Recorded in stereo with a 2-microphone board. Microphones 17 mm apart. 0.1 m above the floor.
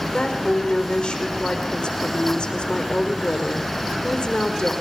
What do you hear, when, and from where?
0.1 s a woman speaking: 75° left (ahead or behind), 6 m